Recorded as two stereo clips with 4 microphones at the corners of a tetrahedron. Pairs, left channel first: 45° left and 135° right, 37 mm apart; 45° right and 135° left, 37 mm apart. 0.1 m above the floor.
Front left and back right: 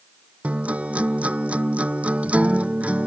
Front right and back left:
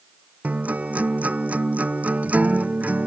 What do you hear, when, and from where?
0.4 s a guitar: straight behind